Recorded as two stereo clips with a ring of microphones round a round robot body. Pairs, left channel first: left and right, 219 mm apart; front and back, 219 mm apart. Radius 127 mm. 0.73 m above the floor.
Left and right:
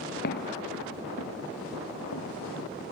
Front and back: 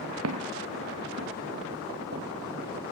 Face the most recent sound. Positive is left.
turn(degrees=125)